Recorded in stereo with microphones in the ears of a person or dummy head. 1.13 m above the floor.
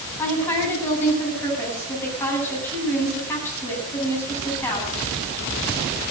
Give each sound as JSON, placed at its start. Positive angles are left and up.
{"t": 0.2, "sound": "a woman speaking", "side_deg": 10, "distance_m": 8.5}